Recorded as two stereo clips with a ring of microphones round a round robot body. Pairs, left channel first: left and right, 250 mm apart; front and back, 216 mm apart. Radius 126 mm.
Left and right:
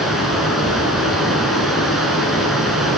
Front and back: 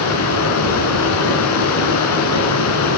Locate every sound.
0.0 s running water: straight ahead, 2 m